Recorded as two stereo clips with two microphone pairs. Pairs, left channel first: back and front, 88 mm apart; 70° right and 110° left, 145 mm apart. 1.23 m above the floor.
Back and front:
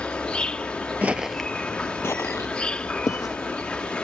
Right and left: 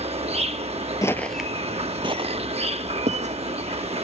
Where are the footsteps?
40° right; by 3.3 s 135° left.